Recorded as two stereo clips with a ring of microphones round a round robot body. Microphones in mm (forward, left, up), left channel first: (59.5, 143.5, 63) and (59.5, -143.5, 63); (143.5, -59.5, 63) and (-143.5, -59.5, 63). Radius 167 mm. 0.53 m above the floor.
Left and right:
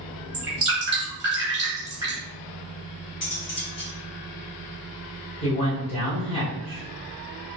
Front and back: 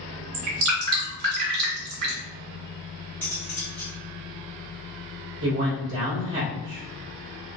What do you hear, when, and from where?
0.3 s dripping: 165° right, 1.9 m
3.2 s cutlery clinking: 85° left, 1.8 m
5.4 s a man speaking: 155° left, 1.8 m